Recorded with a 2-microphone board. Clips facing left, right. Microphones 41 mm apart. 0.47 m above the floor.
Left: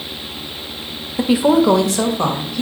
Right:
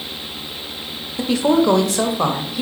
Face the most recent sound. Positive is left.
turn(degrees=-15)  # may be behind; listen again after turning